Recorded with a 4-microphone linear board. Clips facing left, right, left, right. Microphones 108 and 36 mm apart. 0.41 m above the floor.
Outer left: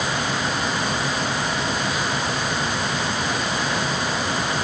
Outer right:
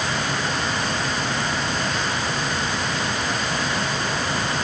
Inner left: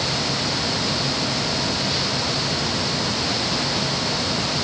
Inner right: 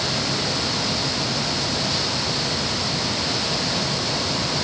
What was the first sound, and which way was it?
Only background noise.